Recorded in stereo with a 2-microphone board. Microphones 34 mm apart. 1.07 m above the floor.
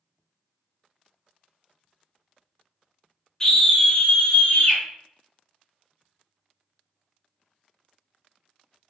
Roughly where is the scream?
Centre.